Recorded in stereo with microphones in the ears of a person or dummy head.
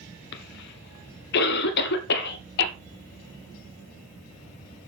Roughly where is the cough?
Left.